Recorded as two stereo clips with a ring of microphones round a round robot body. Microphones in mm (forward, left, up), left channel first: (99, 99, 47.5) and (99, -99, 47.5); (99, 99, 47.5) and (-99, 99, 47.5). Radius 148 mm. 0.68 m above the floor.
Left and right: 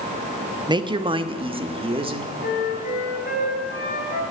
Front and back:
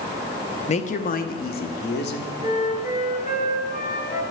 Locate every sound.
0.7 s a woman speaking: 35° right, 0.8 m; by 2.3 s 30° right, 1.8 m
2.4 s a flute: 45° left, 3.5 m